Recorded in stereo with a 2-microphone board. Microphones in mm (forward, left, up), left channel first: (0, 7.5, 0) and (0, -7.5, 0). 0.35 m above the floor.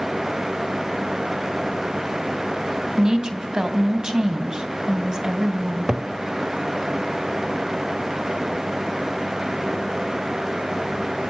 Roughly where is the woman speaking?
Right.